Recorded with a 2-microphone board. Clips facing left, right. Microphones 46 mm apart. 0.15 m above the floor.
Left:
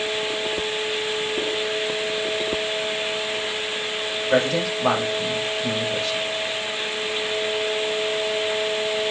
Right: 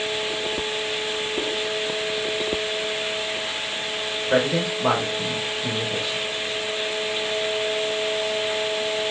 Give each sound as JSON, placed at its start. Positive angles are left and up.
{"t": 4.3, "sound": "a man speaking", "side_deg": -15, "distance_m": 6.5}